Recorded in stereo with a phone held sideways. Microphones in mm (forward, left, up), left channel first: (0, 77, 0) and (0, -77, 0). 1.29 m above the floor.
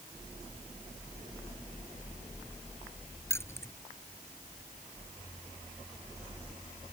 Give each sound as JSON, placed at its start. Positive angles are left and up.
{"t": 3.3, "sound": "keys jangling", "side_deg": 15}